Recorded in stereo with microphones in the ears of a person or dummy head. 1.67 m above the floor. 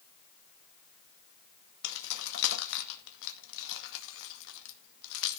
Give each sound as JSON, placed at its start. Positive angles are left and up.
{"t": 1.8, "sound": "keys jangling", "side_deg": 70, "distance_m": 2.0}